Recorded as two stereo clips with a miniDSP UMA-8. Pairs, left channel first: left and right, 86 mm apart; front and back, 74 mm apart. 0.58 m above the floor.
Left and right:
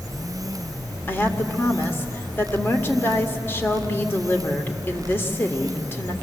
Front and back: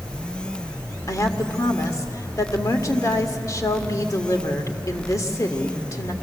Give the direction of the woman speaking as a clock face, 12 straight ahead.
11 o'clock.